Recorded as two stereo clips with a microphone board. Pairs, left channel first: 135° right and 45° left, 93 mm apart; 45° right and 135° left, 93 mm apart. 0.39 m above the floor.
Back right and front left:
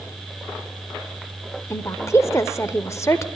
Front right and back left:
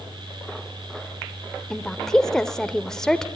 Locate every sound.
1.7 s a woman speaking: 125° right, 1.0 m